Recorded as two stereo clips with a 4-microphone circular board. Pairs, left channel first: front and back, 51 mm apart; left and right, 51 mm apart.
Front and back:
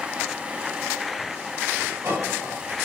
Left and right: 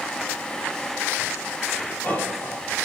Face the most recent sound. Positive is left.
turn(degrees=140)